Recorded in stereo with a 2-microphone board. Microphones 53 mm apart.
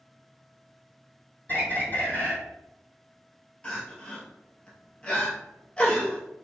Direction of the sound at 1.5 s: 35° left (ahead or behind).